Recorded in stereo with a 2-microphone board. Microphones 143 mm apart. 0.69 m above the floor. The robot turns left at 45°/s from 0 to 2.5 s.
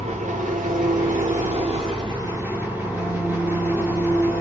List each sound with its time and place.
0.0 s an engine running: 50° right, 1.5 m; by 4.4 s 165° right, 1.5 m